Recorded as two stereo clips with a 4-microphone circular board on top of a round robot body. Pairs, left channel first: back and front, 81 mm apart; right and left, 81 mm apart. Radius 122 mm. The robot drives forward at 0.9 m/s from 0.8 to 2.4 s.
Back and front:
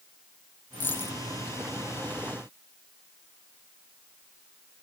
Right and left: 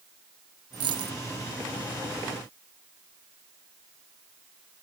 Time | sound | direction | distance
0.7 | a dropped coin | 115° left | ?